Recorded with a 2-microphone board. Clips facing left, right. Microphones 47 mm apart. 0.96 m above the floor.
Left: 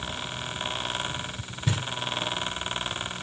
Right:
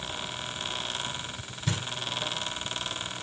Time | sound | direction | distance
1.7 | knocking | 20° left (ahead or behind) | 4 m